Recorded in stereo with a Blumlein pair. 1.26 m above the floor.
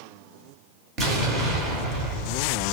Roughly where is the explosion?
Ahead right.